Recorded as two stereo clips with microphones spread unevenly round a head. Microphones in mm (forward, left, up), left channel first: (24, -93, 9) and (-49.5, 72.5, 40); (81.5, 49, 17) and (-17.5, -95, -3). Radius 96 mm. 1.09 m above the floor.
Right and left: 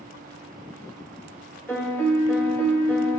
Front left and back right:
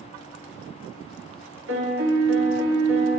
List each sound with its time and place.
1.7 s a piano: 145° right, 1.6 m